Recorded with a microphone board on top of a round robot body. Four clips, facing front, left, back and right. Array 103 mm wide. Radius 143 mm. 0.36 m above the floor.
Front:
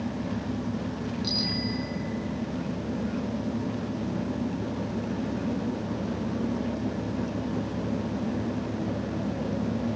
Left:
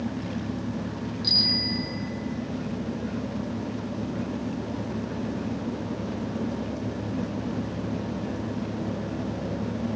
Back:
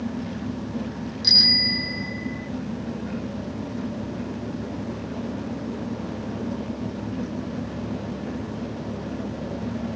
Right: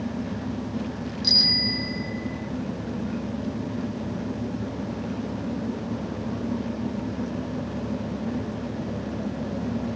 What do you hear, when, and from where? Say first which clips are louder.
1.2 s a bicycle bell: right 3 dB, back 4 dB; 170° right; by 2.5 s 165° right